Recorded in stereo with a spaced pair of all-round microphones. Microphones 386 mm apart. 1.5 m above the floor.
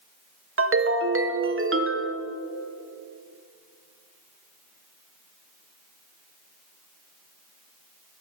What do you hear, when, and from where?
0.6 s a ringtone: 35° right (ahead or behind), 0.6 m